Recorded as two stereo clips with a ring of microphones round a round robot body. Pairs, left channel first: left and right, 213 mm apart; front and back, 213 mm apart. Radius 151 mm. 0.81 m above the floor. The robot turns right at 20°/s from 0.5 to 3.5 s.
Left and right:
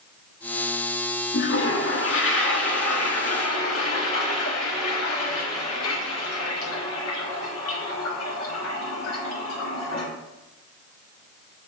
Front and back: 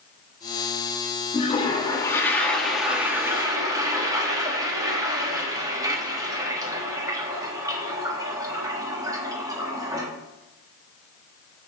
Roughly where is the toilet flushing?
Ahead left.